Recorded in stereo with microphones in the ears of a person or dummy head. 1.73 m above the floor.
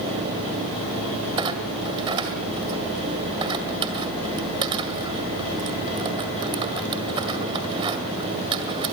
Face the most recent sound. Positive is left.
turn(degrees=-25)  # may be behind; listen again after turning